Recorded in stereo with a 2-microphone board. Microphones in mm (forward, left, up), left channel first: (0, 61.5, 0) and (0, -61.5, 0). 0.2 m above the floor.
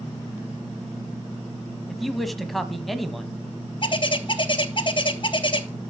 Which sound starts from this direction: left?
A bird, at 3.8 s.